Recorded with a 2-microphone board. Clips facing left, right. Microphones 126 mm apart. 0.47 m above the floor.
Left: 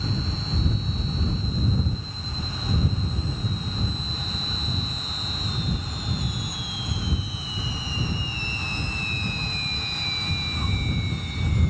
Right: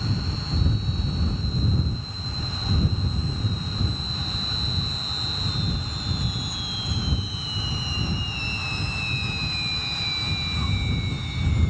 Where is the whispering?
No whispering in this recording.